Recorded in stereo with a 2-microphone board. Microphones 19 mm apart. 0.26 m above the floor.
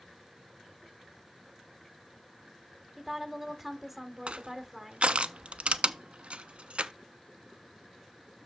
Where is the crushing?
70° right (ahead or behind), 0.5 m.